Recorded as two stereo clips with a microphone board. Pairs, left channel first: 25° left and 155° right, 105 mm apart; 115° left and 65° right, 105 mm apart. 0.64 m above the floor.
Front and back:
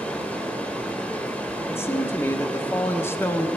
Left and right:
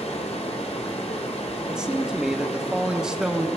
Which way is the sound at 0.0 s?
100° left.